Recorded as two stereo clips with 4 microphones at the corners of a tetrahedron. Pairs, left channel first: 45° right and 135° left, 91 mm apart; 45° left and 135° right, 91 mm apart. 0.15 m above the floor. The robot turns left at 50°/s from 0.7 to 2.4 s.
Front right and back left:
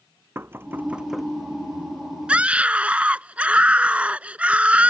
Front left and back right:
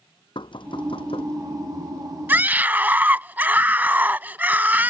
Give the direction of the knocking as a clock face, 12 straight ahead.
10 o'clock.